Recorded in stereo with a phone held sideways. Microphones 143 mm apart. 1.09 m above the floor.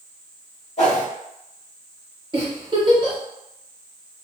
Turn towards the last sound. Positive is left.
turn(degrees=-35)  # may be behind; listen again after turning